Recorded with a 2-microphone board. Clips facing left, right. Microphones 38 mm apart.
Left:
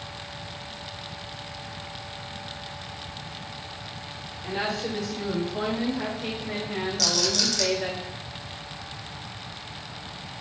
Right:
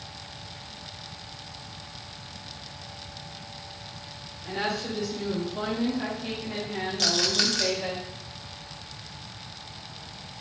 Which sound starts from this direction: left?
A woman speaking, at 4.4 s.